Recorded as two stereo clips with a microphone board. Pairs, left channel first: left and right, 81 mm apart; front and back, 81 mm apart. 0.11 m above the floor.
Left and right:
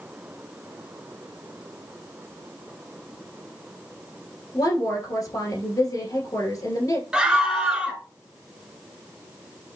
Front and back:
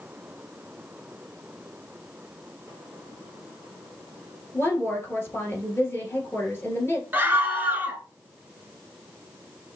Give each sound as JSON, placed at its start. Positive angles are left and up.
{"t": 4.5, "sound": "a woman speaking", "azimuth_deg": 55, "distance_m": 1.9}
{"t": 7.1, "sound": "a scream", "azimuth_deg": -155, "distance_m": 1.1}